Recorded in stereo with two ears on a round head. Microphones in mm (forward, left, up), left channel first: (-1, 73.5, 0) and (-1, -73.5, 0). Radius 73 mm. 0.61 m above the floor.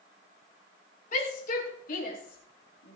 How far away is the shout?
About 5 m.